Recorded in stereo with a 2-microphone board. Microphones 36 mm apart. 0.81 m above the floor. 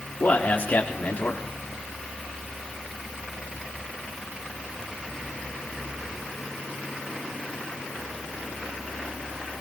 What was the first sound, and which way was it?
A man speaking, 50° left (ahead or behind).